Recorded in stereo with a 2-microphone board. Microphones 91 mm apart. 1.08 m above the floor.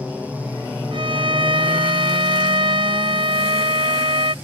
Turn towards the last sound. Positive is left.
turn(degrees=-70)  # may be behind; listen again after turning